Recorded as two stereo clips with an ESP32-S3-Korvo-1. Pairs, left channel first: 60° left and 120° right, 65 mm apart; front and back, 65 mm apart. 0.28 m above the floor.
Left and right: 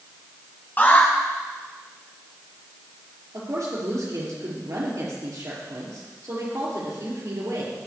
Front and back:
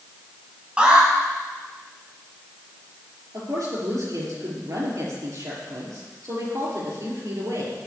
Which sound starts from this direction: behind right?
A woman speaking, at 3.3 s.